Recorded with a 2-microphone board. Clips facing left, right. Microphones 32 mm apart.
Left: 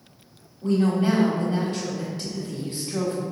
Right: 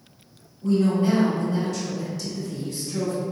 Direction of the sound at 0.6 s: 35° left (ahead or behind).